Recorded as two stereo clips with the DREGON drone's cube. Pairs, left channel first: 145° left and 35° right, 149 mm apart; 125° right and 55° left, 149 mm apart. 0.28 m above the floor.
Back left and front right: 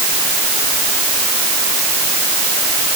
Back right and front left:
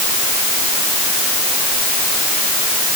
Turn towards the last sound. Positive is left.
No sound to turn to.